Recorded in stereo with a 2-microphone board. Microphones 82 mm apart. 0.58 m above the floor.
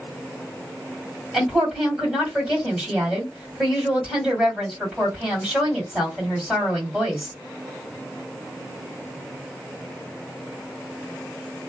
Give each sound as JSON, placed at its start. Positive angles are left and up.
{"t": 1.3, "sound": "a woman speaking", "side_deg": -10, "distance_m": 2.0}